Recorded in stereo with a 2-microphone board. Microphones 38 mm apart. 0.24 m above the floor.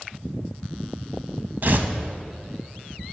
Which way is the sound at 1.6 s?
55° right (ahead or behind).